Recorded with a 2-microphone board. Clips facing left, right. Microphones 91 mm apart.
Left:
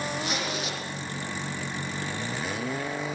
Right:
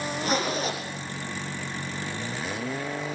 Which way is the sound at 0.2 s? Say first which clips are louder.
Right 5 dB; 40° right (ahead or behind).